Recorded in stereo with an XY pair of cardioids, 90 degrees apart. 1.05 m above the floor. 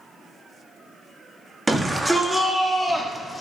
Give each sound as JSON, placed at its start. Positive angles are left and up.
{"t": 1.7, "sound": "a shout", "azimuth_deg": -15, "distance_m": 1.8}